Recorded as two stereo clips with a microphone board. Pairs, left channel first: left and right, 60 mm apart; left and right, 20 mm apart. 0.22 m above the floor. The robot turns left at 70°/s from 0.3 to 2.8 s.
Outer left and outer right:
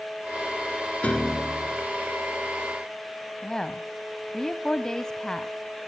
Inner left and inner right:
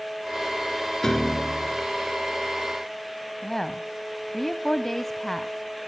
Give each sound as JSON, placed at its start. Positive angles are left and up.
{"t": 1.0, "sound": "a piano", "azimuth_deg": 25, "distance_m": 1.2}
{"t": 3.4, "sound": "a woman speaking", "side_deg": 10, "distance_m": 1.0}